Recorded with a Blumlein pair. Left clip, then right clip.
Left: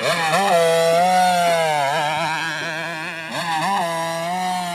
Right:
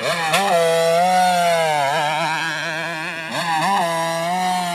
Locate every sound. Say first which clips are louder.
0.0 s a motorcycle: even; 5° left; by 4.8 s 10° right